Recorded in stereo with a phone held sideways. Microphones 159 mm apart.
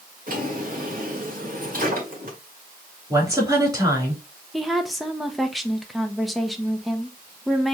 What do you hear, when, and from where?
0.3 s a drawer: 65° right (ahead or behind), 1.9 m
3.1 s a woman speaking: 25° right (ahead or behind), 2.5 m
4.5 s a woman speaking: centre (ahead or behind), 0.7 m